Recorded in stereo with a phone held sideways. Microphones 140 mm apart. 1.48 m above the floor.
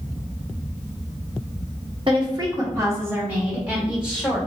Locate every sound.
2.1 s a woman speaking: 40° right (ahead or behind), 0.9 m; by 4.4 s 5° right (ahead or behind), 1.8 m